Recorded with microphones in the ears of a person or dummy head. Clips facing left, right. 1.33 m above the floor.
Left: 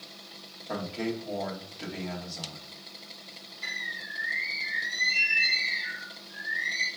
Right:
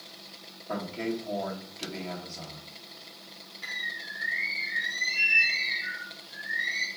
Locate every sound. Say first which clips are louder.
0.7 s a man speaking: even; 5° left (ahead or behind), 1.2 m
3.6 s a bird: left 1 dB; 20° right (ahead or behind), 2 m